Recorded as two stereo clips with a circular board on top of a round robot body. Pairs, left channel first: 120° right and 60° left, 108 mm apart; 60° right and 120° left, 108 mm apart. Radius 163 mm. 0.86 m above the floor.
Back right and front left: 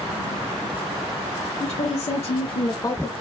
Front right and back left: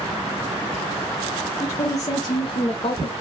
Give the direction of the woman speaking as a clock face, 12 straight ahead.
4 o'clock.